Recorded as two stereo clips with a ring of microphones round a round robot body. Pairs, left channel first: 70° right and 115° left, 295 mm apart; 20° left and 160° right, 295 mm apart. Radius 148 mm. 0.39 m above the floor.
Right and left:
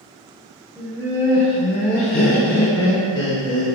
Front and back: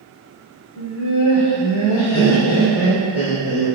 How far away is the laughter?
About 1.7 m.